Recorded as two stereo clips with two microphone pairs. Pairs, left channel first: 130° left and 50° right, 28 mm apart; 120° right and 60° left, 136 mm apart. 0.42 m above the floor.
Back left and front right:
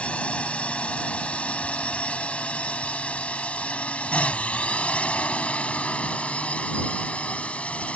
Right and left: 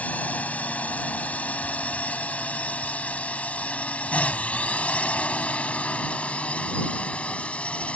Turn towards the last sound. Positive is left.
turn(degrees=155)